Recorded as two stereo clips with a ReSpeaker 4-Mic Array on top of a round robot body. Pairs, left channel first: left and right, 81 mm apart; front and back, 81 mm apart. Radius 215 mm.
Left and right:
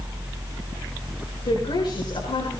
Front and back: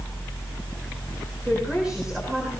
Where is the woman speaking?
100° left, 8 m.